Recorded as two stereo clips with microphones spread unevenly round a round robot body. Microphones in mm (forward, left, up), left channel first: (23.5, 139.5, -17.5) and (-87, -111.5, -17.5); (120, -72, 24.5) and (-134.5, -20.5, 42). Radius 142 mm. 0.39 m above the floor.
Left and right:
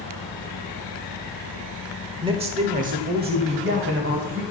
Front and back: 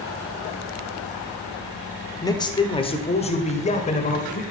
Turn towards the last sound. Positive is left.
turn(degrees=-65)